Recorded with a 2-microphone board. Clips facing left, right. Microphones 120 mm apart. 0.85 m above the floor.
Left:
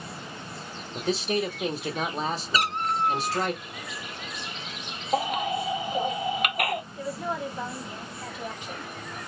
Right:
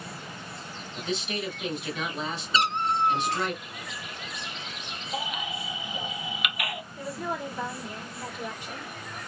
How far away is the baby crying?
About 0.6 m.